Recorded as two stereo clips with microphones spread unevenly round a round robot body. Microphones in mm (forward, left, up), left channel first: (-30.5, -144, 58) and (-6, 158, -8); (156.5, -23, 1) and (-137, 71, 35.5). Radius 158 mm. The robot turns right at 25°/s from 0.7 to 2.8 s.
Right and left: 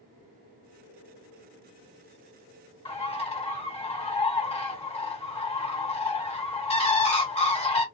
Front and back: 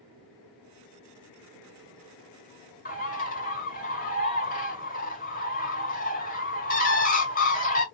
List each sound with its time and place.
2.9 s a bird: 20° right, 1.7 m